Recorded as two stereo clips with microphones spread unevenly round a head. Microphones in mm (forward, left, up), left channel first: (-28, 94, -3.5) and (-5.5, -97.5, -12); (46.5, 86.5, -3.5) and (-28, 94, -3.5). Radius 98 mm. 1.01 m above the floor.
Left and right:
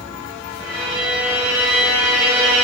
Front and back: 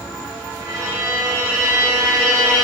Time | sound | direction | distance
0.6 | a violin | 125° right | 5 m